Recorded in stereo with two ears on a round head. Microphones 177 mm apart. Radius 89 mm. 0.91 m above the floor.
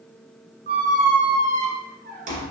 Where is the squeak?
50° right (ahead or behind), 1.3 m.